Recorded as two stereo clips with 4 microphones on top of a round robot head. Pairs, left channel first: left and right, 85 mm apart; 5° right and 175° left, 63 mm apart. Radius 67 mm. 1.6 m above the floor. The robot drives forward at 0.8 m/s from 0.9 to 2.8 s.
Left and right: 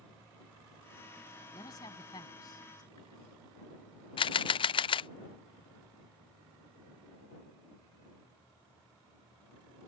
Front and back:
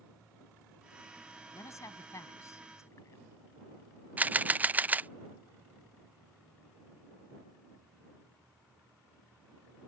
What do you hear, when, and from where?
1.5 s a man speaking: 35° left
4.2 s a camera shutter: 110° left